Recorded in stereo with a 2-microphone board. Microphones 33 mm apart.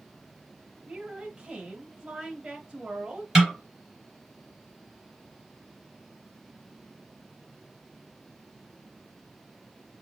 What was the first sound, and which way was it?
A woman speaking, 25° right (ahead or behind).